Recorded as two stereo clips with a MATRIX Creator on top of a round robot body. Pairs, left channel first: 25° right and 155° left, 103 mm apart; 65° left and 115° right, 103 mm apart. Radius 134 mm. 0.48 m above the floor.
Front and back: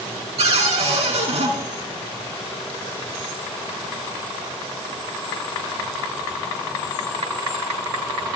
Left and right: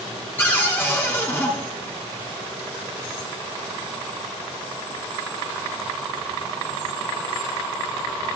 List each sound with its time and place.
0.4 s a cupboard door: 135° left, 4 m